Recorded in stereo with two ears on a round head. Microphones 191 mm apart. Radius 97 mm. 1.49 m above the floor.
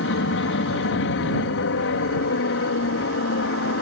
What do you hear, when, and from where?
0.0 s an aircraft: 65° left (ahead or behind)